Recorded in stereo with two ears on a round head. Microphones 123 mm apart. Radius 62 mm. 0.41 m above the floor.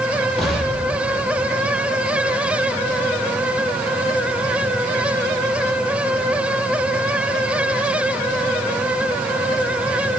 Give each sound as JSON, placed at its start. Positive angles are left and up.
{"t": 0.4, "sound": "an explosion", "side_deg": 0, "distance_m": 6.5}